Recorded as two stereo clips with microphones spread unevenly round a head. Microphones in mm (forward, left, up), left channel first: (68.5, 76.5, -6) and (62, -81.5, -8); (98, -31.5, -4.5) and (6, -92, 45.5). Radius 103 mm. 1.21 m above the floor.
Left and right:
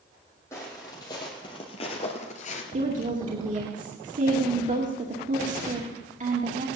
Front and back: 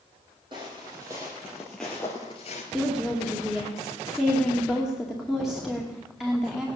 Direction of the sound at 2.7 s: 55° right.